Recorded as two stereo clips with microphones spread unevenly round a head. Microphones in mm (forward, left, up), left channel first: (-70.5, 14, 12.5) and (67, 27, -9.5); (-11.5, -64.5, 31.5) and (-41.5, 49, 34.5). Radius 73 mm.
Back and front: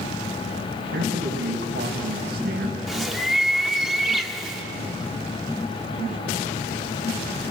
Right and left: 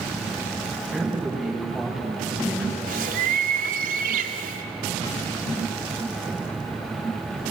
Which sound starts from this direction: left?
A bird, at 2.9 s.